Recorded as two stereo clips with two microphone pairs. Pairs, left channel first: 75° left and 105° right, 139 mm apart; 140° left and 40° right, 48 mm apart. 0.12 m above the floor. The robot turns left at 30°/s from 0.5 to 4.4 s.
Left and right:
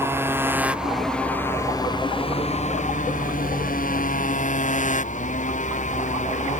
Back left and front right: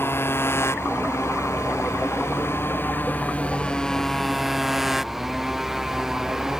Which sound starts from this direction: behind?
A motorcycle, at 0.0 s.